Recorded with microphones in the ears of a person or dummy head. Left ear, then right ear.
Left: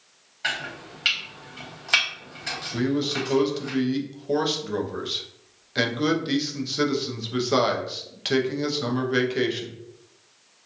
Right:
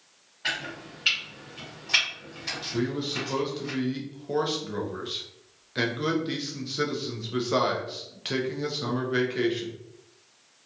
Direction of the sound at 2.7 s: 10° left (ahead or behind).